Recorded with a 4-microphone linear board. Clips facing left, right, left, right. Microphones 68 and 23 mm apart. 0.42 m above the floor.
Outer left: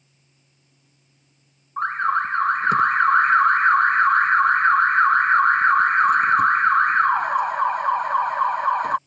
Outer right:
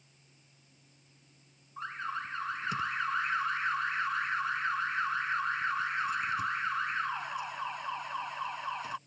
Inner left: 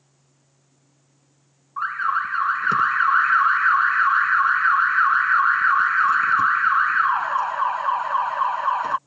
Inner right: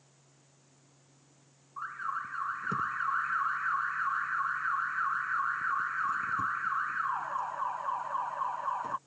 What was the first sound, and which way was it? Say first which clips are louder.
An alarm: outer left 16 dB, inner left 14 dB; 60° left (ahead or behind).